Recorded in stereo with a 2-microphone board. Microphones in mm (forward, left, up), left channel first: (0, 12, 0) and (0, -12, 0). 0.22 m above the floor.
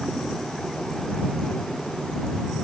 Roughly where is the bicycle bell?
No bicycle bell in this recording.